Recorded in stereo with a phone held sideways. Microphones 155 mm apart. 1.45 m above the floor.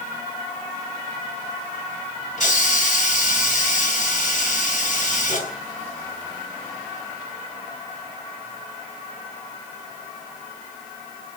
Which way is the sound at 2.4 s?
55° left (ahead or behind).